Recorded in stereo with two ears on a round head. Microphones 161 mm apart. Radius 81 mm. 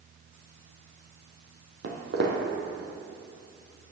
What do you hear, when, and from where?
1.8 s footsteps: 65° right (ahead or behind), 1.5 m